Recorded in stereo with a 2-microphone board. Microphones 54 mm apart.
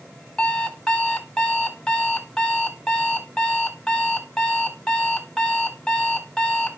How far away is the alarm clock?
About 1.7 m.